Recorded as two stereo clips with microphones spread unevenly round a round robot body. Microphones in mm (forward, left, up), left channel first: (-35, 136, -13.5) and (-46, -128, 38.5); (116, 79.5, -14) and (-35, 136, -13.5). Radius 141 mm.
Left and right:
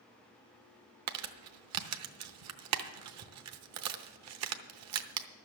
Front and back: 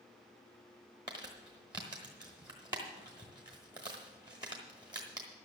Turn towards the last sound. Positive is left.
turn(degrees=-125)